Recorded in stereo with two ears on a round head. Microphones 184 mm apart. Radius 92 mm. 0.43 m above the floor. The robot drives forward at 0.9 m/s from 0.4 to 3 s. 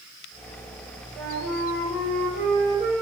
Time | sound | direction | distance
1.1 | a flute | centre (ahead or behind) | 3 m